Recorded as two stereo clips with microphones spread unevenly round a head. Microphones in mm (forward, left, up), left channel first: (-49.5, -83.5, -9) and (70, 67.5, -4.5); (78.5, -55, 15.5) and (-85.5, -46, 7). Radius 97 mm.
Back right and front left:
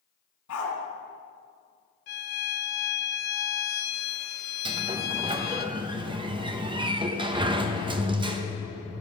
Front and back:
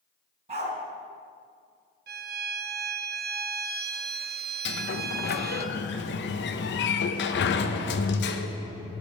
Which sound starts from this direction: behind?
A violin, at 2.1 s.